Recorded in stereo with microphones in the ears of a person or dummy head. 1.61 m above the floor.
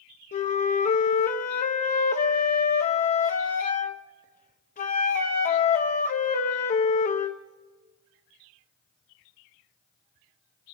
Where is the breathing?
I don't hear breathing.